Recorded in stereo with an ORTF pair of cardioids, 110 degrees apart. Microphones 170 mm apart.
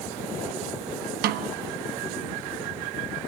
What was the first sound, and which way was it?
A snare drum, 70° right.